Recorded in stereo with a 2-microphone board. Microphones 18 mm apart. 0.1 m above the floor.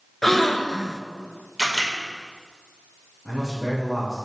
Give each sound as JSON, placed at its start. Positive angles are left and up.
{"t": 0.2, "sound": "a gasp", "side_deg": 15, "distance_m": 0.5}
{"t": 1.6, "sound": "a camera shutter", "side_deg": 10, "distance_m": 3.0}
{"t": 3.2, "sound": "a man speaking", "side_deg": -5, "distance_m": 3.0}